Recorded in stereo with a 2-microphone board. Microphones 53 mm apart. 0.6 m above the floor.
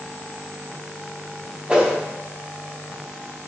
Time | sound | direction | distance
1.7 | a whoosh | 15° right (ahead or behind) | 0.7 m